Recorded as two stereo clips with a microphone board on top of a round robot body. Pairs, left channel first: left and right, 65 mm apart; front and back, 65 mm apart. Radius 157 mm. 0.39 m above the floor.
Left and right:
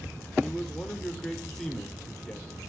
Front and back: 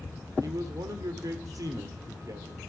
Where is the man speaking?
175° left, 1.6 m.